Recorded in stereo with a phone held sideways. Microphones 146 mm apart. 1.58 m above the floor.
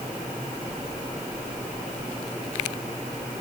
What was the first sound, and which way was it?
Only background noise.